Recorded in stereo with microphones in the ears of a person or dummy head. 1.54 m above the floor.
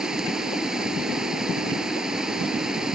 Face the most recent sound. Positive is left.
turn(degrees=-5)  # may be behind; listen again after turning